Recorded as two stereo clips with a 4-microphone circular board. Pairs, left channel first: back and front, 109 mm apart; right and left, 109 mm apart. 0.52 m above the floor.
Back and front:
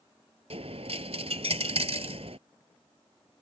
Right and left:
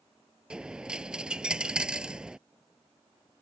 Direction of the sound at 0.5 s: 10° left.